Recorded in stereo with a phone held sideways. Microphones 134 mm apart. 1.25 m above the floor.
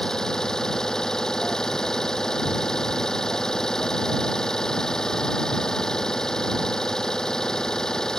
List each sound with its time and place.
0.0 s an engine running: 5° left (ahead or behind)